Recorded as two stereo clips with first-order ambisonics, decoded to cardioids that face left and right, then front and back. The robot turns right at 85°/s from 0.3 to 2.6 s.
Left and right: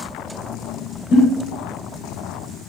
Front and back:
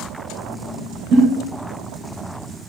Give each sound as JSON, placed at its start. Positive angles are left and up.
{"t": 1.1, "sound": "a giggle", "azimuth_deg": 135, "distance_m": 1.0}